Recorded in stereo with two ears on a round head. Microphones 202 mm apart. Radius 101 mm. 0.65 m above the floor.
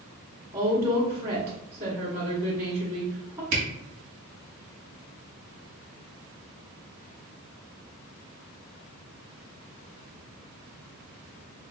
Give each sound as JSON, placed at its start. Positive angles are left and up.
{"t": 0.5, "sound": "a woman speaking", "side_deg": -25, "distance_m": 1.1}
{"t": 3.5, "sound": "a camera shutter", "side_deg": -60, "distance_m": 1.6}